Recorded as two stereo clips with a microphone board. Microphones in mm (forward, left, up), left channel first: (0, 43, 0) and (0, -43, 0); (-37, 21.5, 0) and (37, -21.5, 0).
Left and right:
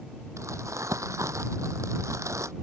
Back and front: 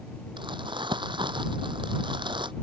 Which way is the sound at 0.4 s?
40° right.